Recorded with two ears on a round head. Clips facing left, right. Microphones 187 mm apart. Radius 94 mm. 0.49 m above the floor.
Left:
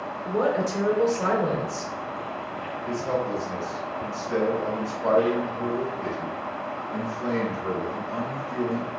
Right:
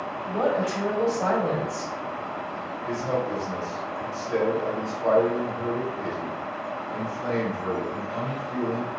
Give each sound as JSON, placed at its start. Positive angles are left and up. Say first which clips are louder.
{"t": 0.2, "sound": "a woman speaking", "louder": "left 1 dB", "side_deg": 50, "distance_m": 1.6}
{"t": 2.9, "sound": "a man speaking", "louder": "even", "side_deg": 10, "distance_m": 1.9}